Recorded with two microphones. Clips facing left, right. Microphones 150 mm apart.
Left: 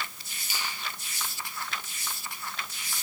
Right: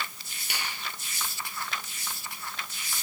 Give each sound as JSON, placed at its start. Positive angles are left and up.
{"t": 0.5, "sound": "a finger snap", "side_deg": -70, "distance_m": 6.0}